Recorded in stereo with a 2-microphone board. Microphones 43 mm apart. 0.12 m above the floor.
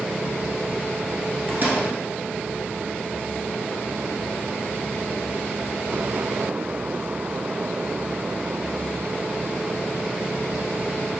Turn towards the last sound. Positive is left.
turn(degrees=-45)  # may be behind; listen again after turning